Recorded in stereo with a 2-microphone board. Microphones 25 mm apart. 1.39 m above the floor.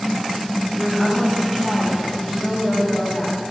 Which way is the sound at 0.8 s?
10° left (ahead or behind).